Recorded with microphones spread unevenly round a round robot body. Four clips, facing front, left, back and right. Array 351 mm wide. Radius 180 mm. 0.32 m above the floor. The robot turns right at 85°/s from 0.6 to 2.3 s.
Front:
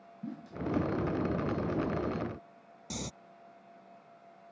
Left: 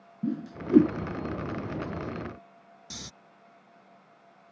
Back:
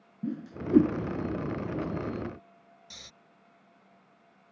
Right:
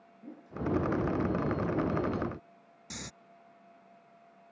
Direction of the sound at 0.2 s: 105° left.